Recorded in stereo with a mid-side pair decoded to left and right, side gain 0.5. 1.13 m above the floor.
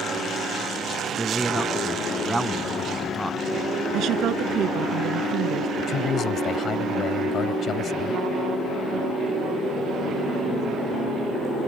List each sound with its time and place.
1.2 s a man speaking: 10° right
3.9 s a woman speaking: 65° right
5.8 s a man speaking: 55° left